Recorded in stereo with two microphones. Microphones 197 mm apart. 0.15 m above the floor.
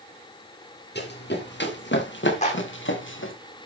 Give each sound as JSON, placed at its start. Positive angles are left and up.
{"t": 0.9, "sound": "running footsteps", "side_deg": 60, "distance_m": 6.5}
{"t": 2.4, "sound": "a clap", "side_deg": 35, "distance_m": 6.5}